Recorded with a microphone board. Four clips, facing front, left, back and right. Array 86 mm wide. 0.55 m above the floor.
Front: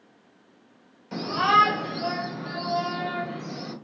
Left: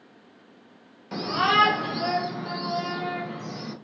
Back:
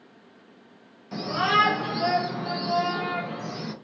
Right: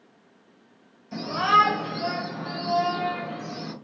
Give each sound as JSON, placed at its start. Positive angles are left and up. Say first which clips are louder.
{"t": 1.1, "sound": "a shout", "louder": "right 2 dB, front 3 dB", "azimuth_deg": 80, "distance_m": 1.2}